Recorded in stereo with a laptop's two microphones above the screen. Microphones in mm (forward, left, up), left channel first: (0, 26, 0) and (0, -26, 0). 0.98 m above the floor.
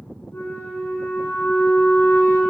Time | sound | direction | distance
0.3 | a flute | 55° left (ahead or behind) | 1.5 m